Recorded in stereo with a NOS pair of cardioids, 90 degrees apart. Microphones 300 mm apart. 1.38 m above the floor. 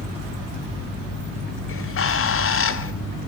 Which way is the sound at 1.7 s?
45° left.